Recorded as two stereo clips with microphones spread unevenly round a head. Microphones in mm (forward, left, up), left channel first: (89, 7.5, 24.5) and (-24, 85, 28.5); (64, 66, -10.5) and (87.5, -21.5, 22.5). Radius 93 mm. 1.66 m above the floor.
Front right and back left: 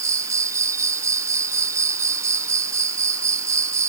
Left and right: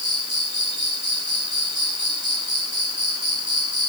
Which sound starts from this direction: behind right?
An insect, at 0.0 s.